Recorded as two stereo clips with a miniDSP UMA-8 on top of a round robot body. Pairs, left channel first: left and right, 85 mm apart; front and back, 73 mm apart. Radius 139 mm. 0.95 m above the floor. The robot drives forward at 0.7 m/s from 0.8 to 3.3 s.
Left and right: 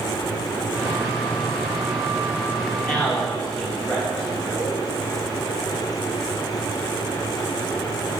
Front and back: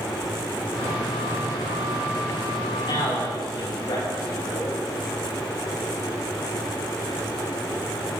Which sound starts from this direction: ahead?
A man speaking, at 2.8 s.